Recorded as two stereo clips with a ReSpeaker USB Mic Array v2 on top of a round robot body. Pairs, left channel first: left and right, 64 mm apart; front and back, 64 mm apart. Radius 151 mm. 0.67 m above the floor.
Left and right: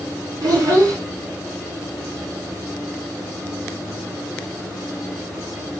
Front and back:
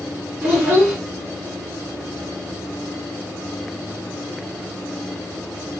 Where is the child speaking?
110° right, 1.7 m.